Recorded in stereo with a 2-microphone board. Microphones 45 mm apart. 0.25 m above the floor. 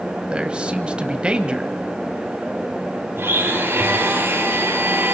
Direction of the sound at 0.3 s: 20° right (ahead or behind).